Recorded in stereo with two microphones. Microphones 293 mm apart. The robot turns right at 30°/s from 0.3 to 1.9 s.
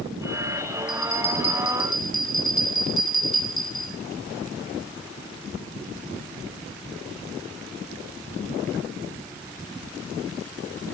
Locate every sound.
0.9 s a bell: 40° left, 3.5 m; by 3.9 s 70° left, 3.5 m